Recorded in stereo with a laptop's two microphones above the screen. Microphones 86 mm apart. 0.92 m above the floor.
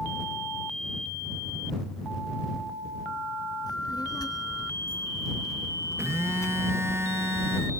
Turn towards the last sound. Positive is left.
turn(degrees=-30)  # may be behind; listen again after turning